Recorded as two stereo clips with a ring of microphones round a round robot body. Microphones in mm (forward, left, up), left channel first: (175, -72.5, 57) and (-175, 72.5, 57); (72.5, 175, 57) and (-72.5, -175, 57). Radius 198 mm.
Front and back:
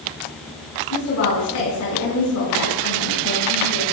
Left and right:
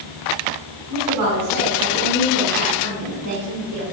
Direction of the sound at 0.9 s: 65° right.